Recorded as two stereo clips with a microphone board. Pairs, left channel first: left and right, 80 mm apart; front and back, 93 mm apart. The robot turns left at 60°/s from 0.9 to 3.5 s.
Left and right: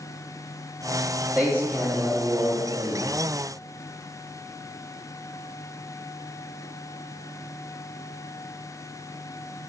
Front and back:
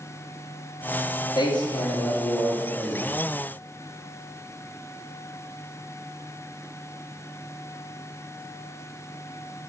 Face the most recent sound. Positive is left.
turn(degrees=-140)